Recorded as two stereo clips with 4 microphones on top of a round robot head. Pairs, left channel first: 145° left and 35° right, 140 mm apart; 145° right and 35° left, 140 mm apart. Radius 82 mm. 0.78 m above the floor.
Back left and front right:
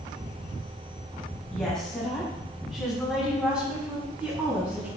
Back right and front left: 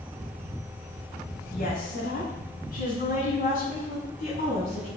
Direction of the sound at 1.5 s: 125° right.